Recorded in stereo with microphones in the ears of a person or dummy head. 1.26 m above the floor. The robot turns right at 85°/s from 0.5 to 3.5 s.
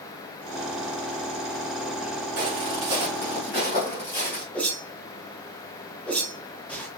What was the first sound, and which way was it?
Footsteps, 45° right (ahead or behind).